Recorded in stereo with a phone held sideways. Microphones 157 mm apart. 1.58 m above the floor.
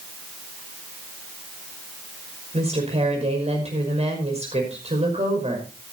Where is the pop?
I don't hear a pop.